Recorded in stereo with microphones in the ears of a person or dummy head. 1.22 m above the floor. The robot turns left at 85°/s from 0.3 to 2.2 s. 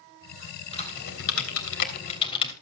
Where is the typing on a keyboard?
25° left (ahead or behind), 3 m; by 2.5 s 30° left (ahead or behind), 3 m.